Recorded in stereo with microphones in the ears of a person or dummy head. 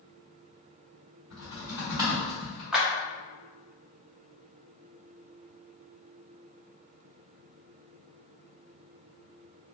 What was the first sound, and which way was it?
Typing on a keyboard, 15° right (ahead or behind).